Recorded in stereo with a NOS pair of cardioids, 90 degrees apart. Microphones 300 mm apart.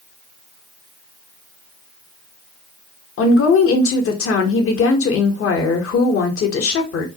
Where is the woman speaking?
45° left, 0.9 m.